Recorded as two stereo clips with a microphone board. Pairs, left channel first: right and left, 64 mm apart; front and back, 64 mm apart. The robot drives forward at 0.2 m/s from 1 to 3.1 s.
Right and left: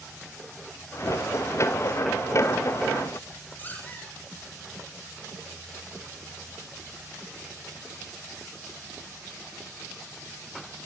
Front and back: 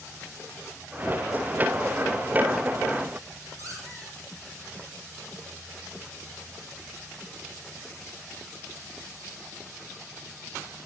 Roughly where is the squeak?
Behind right.